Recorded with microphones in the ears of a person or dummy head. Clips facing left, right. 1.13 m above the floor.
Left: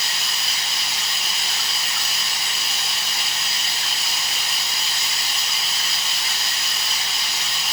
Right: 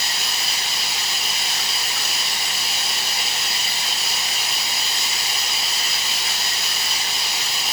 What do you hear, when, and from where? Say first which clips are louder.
0.0 s running water: right 2 dB; centre (ahead or behind), 1.9 m